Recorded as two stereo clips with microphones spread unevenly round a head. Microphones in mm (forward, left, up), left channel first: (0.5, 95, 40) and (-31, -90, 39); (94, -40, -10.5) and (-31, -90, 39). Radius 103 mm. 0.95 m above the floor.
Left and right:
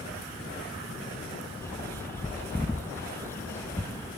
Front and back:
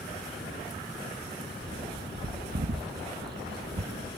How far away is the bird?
About 1.0 m.